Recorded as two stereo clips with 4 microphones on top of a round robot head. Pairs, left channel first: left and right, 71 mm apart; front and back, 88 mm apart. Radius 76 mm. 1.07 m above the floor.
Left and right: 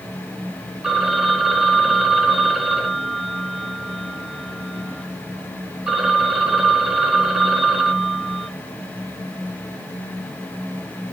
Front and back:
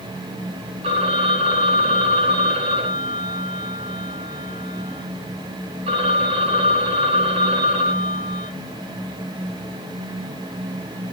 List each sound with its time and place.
0.8 s a phone ringing: 175° right, 3 m